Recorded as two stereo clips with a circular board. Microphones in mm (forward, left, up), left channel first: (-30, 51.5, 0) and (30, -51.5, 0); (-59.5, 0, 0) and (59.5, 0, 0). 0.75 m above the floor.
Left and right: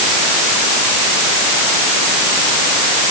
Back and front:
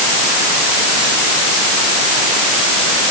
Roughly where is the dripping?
I don't hear dripping.